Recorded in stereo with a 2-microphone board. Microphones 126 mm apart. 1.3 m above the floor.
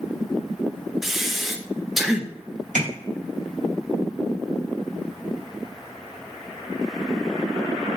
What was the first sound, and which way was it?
Breathing, 5° right (ahead or behind).